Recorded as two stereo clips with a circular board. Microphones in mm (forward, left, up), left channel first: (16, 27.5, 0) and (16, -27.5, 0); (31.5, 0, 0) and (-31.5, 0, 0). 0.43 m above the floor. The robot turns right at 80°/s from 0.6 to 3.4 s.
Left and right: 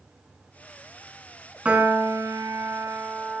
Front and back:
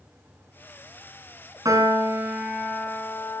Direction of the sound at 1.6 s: 160° right.